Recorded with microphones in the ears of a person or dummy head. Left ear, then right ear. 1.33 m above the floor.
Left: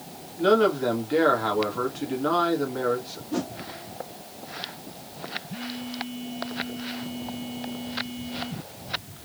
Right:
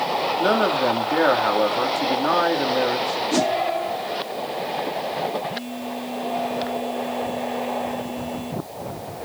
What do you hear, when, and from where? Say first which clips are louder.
0.4 s a man speaking: left 1 dB; 15° right (ahead or behind), 2 m
3.3 s a whoosh: right 9 dB; 60° right (ahead or behind), 0.5 m
5.5 s a phone buzzing: right 6 dB; 30° right (ahead or behind), 4.5 m